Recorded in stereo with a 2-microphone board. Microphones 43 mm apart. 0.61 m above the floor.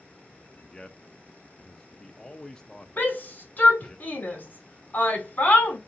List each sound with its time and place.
0.6 s a man speaking: 15° left (ahead or behind), 0.5 m
3.0 s a shout: 40° left (ahead or behind), 1.8 m